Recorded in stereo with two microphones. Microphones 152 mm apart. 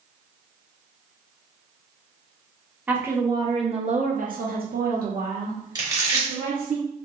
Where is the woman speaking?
10° right (ahead or behind), 0.9 m; by 6.8 s 60° right (ahead or behind), 1.7 m.